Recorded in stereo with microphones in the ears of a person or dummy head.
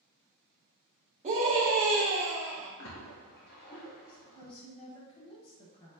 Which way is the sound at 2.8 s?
55° left (ahead or behind).